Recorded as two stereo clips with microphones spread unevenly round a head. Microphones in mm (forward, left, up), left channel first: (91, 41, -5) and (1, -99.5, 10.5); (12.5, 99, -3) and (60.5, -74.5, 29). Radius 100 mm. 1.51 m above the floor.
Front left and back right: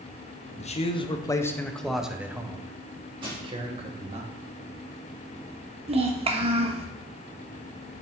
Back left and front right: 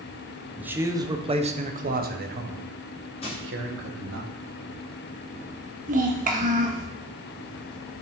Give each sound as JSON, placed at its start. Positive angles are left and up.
{"t": 0.6, "sound": "a man speaking", "azimuth_deg": 10, "distance_m": 1.0}
{"t": 3.2, "sound": "crushing", "azimuth_deg": 170, "distance_m": 3.0}
{"t": 5.9, "sound": "a child speaking", "azimuth_deg": -85, "distance_m": 1.0}